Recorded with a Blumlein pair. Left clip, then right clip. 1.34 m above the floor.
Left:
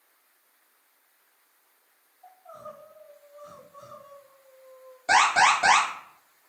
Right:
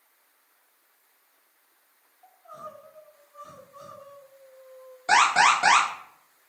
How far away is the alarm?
About 1.3 m.